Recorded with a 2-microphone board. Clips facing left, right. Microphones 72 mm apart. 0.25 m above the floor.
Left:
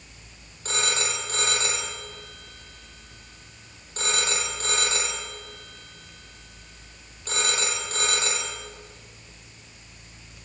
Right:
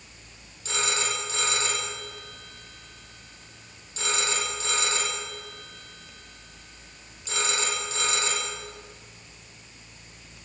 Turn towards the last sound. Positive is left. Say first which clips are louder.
# even
turn(degrees=50)  # may be behind; listen again after turning